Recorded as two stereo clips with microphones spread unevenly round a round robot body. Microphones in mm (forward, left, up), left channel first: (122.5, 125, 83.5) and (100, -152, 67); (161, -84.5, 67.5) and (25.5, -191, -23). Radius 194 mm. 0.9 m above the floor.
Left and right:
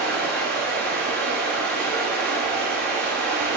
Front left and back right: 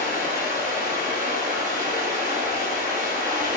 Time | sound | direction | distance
0.0 | running water | 150° right | 1.7 m